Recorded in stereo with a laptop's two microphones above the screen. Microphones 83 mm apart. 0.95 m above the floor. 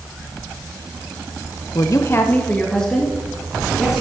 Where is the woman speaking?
50° left (ahead or behind), 0.6 m; by 4.0 s 5° right (ahead or behind), 2 m.